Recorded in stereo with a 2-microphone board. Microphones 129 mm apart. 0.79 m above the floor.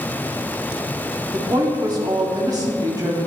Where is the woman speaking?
30° right (ahead or behind), 1.8 m.